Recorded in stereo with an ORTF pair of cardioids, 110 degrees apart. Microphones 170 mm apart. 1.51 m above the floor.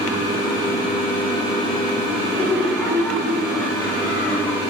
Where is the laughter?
35° left, 2.0 m; by 4.6 s 10° left, 5 m.